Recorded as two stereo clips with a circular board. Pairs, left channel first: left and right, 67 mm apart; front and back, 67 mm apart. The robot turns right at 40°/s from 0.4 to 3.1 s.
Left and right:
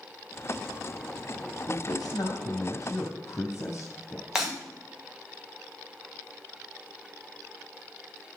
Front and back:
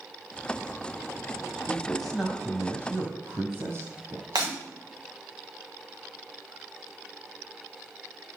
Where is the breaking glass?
170° right, 7.5 m.